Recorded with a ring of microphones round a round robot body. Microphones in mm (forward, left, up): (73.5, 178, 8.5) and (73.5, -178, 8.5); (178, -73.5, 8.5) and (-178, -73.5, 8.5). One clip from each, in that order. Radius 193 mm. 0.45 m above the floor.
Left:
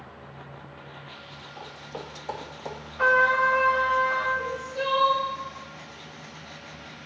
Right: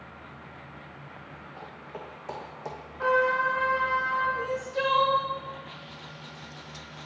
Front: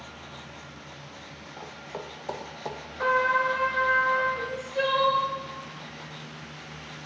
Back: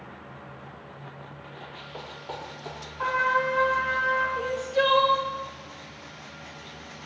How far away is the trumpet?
About 1.4 m.